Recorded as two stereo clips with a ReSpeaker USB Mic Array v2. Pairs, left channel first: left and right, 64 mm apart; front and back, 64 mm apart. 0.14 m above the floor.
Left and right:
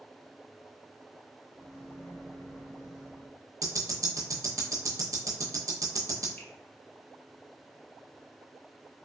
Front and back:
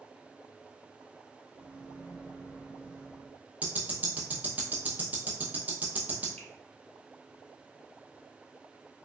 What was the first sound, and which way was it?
A microwave, 125° left.